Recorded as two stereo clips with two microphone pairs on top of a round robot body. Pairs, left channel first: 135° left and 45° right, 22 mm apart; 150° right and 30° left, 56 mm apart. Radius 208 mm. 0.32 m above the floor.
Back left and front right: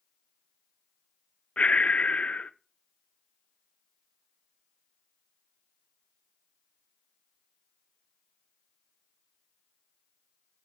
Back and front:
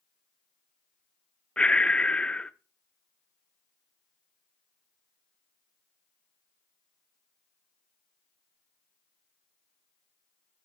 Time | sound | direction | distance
1.6 | breathing | 140° left | 0.7 m